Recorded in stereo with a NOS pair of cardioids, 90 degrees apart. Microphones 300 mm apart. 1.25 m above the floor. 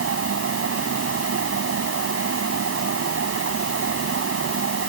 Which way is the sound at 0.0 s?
50° right.